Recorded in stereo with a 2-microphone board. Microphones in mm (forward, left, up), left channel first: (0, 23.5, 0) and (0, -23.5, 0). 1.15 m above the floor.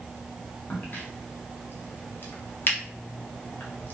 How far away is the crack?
About 0.7 m.